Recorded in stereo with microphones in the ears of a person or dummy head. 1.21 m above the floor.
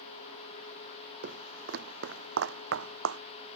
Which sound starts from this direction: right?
Footsteps, at 1.2 s.